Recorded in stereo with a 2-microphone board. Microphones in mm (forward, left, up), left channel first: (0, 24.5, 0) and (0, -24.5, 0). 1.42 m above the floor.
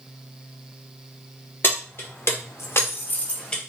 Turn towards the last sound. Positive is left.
turn(degrees=15)  # may be behind; listen again after turning